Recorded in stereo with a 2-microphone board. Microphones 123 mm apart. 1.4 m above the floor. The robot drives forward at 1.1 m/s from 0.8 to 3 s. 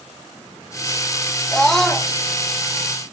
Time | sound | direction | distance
1.5 | a scream | 5° left (ahead or behind) | 1.3 m